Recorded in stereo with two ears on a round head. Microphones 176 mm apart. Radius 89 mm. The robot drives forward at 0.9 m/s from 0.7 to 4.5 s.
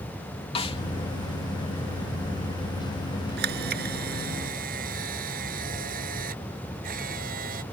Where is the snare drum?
30° left (ahead or behind).